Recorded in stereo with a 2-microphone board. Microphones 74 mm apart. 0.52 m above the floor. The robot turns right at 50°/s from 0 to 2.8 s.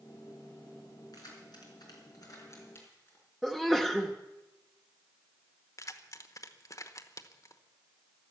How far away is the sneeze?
About 0.8 m.